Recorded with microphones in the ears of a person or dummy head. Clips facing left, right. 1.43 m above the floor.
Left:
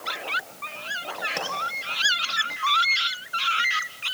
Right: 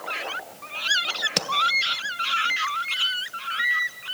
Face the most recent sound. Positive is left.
turn(degrees=-45)  # may be behind; listen again after turning